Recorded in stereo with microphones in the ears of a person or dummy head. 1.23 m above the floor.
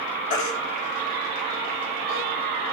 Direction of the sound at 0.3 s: 50° left (ahead or behind).